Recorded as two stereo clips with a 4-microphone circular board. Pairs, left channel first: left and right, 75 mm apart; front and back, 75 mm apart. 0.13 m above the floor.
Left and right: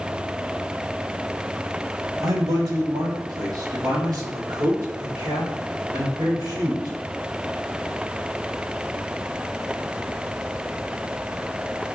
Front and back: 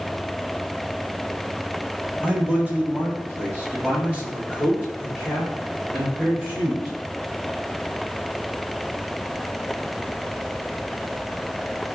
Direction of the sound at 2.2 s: 110° right.